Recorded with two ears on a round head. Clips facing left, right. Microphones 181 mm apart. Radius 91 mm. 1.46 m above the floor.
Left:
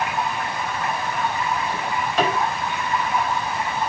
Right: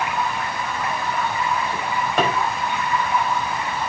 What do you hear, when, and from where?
0.0 s running water: 70° right (ahead or behind), 5.5 m
1.7 s a drawer: 45° right (ahead or behind), 5.5 m